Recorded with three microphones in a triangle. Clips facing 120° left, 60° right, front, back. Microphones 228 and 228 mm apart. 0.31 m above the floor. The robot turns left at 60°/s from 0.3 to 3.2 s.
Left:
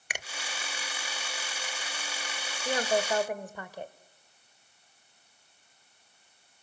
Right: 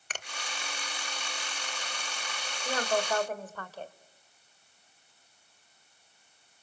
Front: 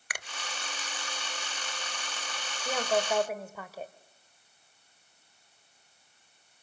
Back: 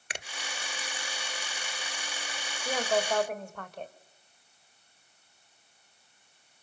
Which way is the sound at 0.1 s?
Straight behind.